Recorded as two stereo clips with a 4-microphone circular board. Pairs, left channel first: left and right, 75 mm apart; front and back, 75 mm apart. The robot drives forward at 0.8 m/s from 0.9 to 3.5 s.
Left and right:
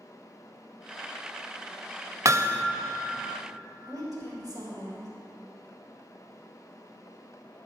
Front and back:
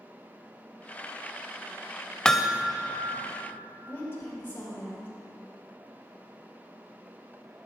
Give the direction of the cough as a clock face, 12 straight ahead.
No cough in this recording.